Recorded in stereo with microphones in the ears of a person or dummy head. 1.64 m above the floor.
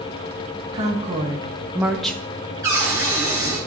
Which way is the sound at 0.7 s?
30° right (ahead or behind).